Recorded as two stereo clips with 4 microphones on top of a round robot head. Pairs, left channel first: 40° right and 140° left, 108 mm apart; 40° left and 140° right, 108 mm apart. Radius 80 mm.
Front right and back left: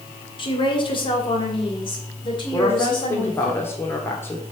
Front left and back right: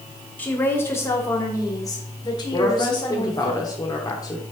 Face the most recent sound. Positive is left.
turn(degrees=15)